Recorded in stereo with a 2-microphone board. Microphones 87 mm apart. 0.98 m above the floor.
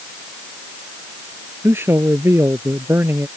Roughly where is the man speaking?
Right.